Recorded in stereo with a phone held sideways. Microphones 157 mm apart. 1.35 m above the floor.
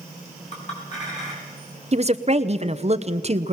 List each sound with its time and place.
0.5 s a clink: 50° left (ahead or behind), 7 m
1.9 s a woman speaking: 45° right (ahead or behind), 0.9 m